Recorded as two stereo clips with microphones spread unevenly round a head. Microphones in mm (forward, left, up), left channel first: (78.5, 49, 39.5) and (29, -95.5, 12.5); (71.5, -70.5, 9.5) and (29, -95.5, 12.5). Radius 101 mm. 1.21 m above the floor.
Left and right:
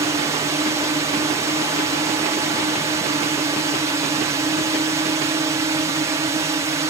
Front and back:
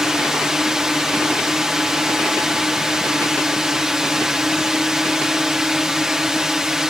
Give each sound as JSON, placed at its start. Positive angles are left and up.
{"t": 0.0, "sound": "a drone", "azimuth_deg": -75}